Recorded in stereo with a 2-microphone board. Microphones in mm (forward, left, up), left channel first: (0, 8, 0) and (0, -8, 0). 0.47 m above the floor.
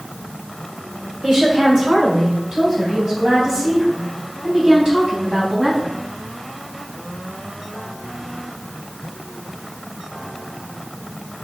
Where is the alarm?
No alarm in this recording.